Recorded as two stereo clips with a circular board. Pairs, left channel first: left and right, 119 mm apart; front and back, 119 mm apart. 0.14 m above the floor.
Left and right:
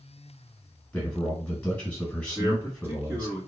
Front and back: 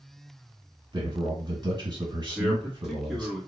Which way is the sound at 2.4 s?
105° right.